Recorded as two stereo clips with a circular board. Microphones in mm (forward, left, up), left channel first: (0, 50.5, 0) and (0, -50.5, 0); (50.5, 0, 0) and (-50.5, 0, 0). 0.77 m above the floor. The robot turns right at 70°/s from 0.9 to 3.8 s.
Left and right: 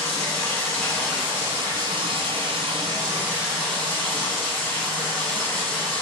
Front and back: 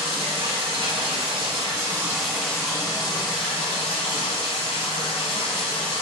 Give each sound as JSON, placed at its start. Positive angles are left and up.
{"t": 0.0, "sound": "running water", "azimuth_deg": 170, "distance_m": 1.5}